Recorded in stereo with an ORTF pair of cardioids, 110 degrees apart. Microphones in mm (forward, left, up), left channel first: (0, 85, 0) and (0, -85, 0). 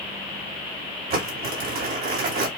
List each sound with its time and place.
1.1 s crumpling: 60° right, 3 m